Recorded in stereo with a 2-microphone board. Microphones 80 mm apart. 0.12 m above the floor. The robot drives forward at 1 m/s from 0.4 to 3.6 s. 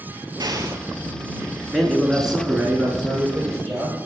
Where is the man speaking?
Centre (ahead or behind), 1.1 m.